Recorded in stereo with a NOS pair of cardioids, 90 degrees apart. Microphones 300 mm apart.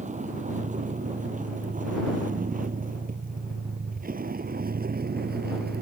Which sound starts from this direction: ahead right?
A vehicle, at 0.0 s.